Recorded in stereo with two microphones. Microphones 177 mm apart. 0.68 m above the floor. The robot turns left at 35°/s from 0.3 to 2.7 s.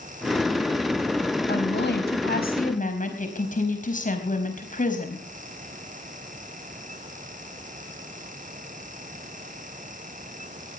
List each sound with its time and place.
1.5 s a woman speaking: 90° left, 4 m; by 5.2 s 50° left, 4 m